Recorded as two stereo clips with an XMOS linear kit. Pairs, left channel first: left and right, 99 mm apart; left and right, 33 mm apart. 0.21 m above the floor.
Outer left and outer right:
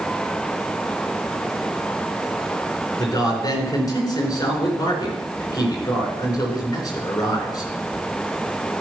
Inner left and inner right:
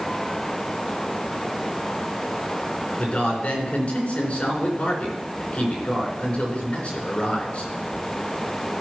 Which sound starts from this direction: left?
A man speaking, at 3.0 s.